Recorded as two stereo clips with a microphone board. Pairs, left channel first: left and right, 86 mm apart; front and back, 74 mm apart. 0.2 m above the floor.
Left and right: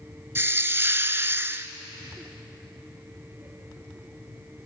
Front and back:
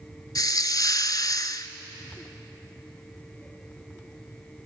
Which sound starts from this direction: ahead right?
A hiss, at 0.3 s.